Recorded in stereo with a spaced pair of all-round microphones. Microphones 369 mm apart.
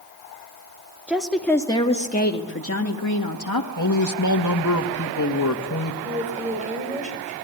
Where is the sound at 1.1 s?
5° right (ahead or behind), 2.5 m; by 3.7 s 65° left (ahead or behind), 2.5 m.